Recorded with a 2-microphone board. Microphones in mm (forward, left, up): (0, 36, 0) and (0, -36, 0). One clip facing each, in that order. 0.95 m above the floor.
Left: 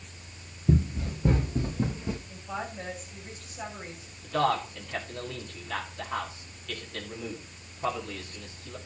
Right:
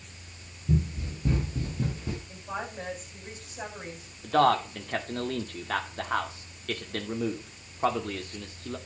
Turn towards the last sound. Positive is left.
turn(degrees=-55)  # may be behind; listen again after turning